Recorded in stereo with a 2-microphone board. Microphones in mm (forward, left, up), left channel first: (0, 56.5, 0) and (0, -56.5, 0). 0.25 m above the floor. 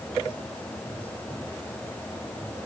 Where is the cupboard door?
No cupboard door in this recording.